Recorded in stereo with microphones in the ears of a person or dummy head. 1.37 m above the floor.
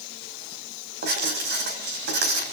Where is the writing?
55° right (ahead or behind), 4.5 m.